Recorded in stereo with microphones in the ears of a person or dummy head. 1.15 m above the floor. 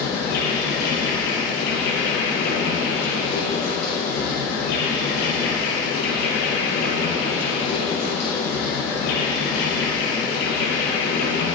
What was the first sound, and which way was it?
An insect, 75° left (ahead or behind).